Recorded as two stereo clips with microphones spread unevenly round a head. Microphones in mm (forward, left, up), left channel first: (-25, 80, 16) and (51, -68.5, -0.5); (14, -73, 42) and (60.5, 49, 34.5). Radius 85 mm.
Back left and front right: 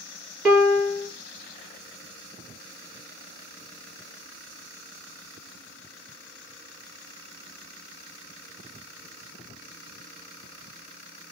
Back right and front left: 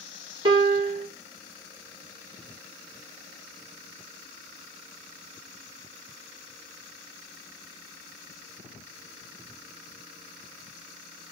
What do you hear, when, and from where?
0.5 s a piano: 20° left, 3 m